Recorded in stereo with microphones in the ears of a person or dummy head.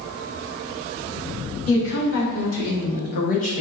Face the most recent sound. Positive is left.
turn(degrees=35)  # may be behind; listen again after turning